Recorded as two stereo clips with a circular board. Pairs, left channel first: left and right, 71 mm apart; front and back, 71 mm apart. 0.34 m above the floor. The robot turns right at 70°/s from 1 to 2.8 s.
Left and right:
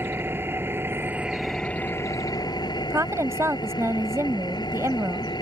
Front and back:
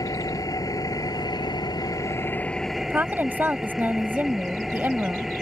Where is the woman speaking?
125° right.